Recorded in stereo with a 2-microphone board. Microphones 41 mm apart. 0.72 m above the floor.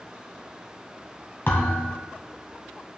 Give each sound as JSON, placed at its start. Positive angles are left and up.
{"t": 1.5, "sound": "a thud", "side_deg": 55, "distance_m": 1.7}